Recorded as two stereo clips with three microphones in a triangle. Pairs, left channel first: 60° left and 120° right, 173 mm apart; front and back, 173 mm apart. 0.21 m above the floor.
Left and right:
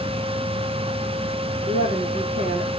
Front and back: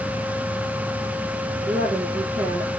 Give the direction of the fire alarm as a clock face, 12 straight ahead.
I don't hear a fire alarm.